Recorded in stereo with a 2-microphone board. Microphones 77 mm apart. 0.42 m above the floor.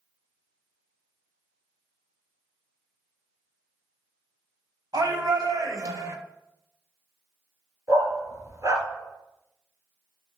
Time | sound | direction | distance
4.9 | a shout | 60° right (ahead or behind) | 2.5 m
7.9 | a dog barking | 45° right (ahead or behind) | 1.9 m